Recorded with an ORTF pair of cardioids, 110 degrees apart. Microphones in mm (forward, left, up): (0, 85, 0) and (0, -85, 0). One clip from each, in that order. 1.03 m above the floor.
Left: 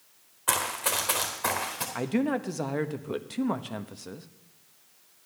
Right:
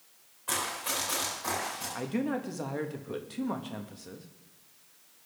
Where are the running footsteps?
65° left, 3.5 m; by 1.9 s 75° left, 5 m.